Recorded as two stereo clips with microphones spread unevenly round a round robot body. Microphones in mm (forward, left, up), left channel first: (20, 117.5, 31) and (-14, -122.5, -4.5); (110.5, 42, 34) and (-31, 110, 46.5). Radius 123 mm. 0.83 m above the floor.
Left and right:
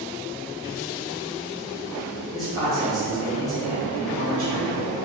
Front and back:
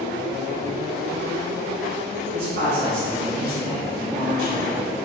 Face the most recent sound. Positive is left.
turn(degrees=160)